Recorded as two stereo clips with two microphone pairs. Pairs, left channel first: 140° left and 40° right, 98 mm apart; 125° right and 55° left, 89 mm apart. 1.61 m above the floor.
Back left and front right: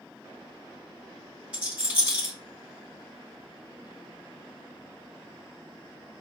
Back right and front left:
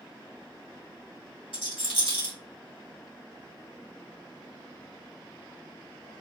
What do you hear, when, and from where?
1.5 s a rattle: 115° right, 1.9 m